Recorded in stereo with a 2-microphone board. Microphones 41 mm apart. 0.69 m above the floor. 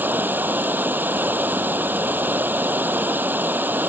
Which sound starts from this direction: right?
Running water, at 0.0 s.